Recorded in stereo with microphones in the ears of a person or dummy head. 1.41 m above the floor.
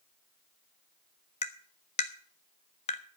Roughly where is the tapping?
Left.